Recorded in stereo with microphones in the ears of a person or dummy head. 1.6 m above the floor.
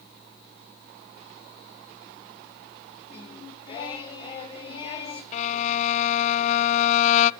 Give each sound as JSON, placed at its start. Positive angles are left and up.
{"t": 3.1, "sound": "singing", "side_deg": 25, "distance_m": 2.5}
{"t": 5.3, "sound": "a violin", "side_deg": 40, "distance_m": 0.6}